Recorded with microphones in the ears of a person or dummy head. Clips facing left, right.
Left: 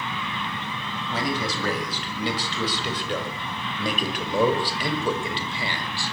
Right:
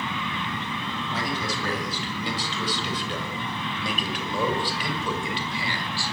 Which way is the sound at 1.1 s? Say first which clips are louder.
Left 4 dB; 60° left (ahead or behind).